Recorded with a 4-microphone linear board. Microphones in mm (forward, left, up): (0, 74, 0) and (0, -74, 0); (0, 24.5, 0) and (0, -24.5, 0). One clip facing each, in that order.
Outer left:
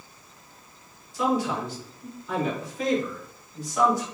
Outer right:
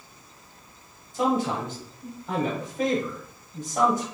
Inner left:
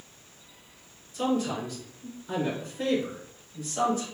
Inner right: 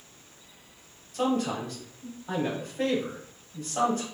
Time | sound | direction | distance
1.1 | a man speaking | 55° right (ahead or behind) | 2 m